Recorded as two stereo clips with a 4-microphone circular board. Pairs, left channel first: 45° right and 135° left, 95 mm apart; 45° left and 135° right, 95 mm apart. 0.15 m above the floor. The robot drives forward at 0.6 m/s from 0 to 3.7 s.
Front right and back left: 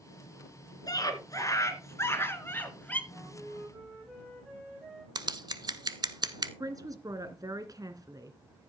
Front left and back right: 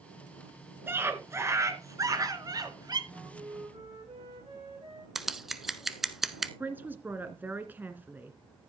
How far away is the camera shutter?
I don't hear a camera shutter.